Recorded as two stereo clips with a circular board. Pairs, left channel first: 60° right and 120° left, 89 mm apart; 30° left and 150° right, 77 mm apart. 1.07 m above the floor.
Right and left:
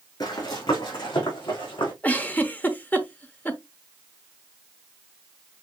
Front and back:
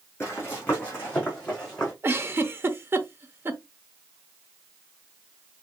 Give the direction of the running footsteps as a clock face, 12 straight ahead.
1 o'clock.